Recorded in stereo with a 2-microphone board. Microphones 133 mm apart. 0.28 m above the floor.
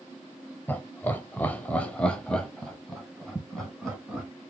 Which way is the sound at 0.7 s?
15° left (ahead or behind).